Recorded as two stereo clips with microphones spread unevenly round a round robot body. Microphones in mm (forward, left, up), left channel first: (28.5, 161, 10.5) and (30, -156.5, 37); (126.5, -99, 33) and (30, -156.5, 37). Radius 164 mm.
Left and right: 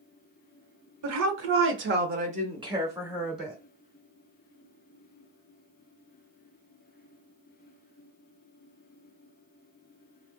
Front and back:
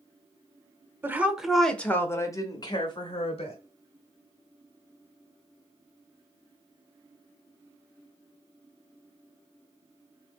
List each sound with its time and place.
1.0 s a woman speaking: 80° right, 1.1 m; by 3.6 s straight ahead, 1.7 m